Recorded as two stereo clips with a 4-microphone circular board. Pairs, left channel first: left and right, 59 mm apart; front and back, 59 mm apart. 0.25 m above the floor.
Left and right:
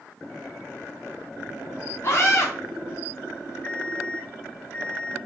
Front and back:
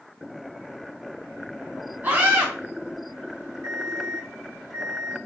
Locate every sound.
2.0 s a scream: 130° left, 2.5 m
3.6 s an alarm clock: 145° left, 1.6 m